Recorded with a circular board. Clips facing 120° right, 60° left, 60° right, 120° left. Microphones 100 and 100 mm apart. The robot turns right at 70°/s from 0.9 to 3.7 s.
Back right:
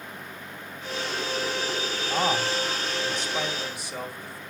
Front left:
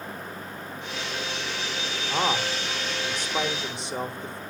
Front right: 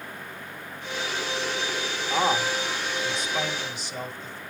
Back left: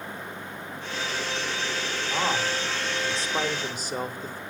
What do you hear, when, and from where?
2.1 s a man speaking: straight ahead, 1.1 m; by 4.4 s 110° left, 1.1 m